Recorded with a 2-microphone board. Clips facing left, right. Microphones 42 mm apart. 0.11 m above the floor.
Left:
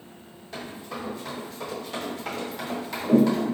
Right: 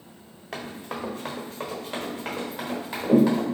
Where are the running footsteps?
70° right (ahead or behind), 0.9 m; by 3.5 s 10° right (ahead or behind), 1.9 m.